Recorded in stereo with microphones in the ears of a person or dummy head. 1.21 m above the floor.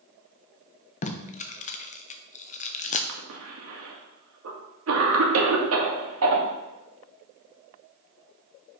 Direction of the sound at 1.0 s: 40° left (ahead or behind).